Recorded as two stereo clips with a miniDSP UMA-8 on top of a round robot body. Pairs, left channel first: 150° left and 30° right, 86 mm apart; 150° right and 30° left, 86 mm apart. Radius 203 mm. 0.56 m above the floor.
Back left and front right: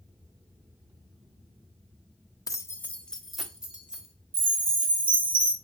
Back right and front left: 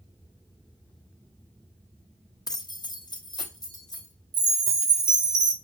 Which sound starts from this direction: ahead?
A chime, at 4.3 s.